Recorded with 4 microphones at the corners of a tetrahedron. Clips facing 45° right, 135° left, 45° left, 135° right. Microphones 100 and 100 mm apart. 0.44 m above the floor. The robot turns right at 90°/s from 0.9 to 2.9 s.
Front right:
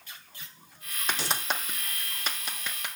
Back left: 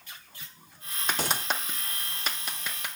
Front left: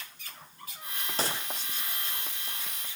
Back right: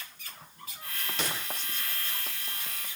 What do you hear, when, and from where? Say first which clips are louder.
1.2 s a gunshot: back left 2 dB, front left 3 dB; 95° left, 2.5 m; by 1.5 s 120° left, 2.5 m